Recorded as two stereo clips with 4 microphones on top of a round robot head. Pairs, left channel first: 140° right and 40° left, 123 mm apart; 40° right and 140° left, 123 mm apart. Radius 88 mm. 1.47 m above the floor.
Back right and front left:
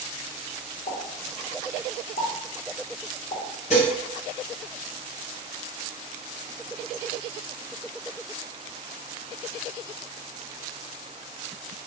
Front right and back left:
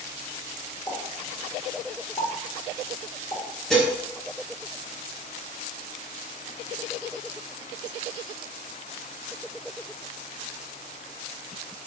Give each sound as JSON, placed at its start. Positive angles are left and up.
{"t": 0.9, "sound": "a pop", "azimuth_deg": -110, "distance_m": 1.4}
{"t": 3.7, "sound": "dishes clattering", "azimuth_deg": -125, "distance_m": 0.8}